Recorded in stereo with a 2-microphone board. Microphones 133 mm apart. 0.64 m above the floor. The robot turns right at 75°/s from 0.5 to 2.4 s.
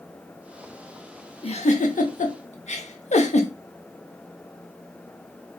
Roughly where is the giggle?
Left.